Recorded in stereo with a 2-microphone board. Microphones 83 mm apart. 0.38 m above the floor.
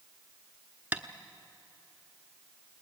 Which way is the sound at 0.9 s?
20° right (ahead or behind).